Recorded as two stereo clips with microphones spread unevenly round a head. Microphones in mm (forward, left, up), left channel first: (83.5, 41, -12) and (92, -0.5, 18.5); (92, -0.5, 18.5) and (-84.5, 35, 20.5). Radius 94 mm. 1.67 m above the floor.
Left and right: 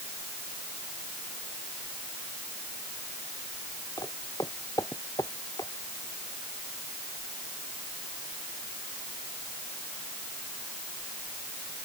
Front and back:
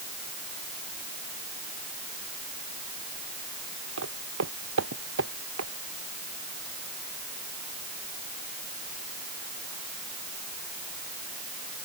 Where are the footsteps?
155° left; by 5.7 s 160° left.